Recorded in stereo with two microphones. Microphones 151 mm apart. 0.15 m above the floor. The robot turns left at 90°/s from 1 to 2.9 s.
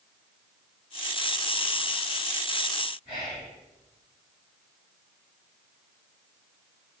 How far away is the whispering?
About 1.4 m.